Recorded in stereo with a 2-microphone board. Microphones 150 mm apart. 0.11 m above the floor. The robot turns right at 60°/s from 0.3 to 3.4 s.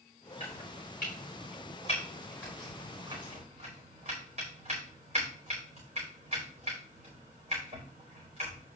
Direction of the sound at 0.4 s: 50° left (ahead or behind).